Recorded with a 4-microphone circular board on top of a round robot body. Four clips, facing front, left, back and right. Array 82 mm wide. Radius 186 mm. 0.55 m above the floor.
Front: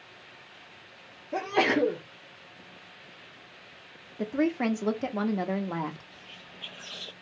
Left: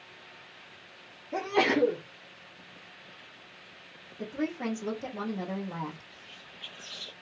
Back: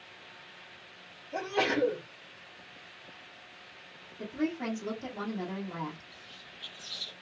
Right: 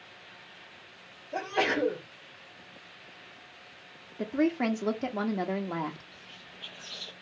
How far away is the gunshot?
No gunshot in this recording.